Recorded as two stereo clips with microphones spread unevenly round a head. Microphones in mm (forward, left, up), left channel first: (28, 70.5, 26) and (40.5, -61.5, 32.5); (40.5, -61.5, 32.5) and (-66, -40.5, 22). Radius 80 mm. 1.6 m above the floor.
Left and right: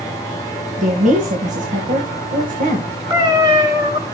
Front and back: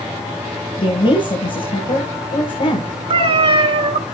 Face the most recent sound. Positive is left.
turn(degrees=-150)